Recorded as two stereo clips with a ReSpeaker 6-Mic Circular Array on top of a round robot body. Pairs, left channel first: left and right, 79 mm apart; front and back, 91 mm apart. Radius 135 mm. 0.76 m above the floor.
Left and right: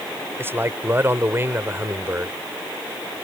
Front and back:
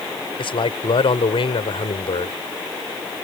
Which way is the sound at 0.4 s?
30° right.